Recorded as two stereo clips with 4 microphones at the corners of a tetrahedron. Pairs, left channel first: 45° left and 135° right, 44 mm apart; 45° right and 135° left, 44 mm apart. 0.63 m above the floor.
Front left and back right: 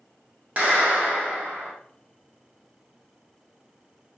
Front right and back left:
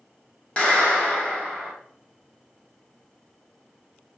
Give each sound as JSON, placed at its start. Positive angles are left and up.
{"t": 0.6, "sound": "a clap", "azimuth_deg": -95, "distance_m": 1.2}